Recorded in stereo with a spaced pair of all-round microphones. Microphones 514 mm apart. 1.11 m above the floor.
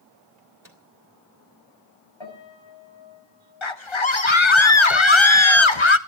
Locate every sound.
0.4 s a microwave: 40° right (ahead or behind), 3 m
2.2 s a piano: 60° left (ahead or behind), 8 m
3.6 s a scream: 60° left (ahead or behind), 1.3 m